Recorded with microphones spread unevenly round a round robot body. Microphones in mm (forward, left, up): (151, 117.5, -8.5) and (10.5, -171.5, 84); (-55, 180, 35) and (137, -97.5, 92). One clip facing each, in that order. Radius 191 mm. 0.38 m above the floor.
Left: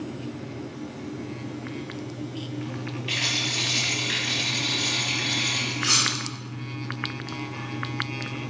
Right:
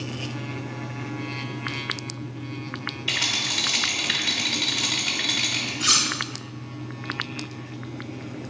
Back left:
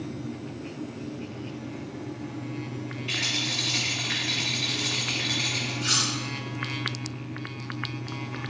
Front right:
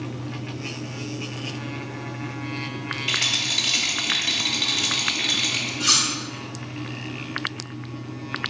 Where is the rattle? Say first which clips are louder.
Left 2 dB, even; 85° right, 1.4 m.